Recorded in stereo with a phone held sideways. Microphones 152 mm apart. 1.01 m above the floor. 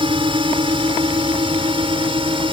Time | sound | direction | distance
0.0 | a drone | 35° right (ahead or behind) | ?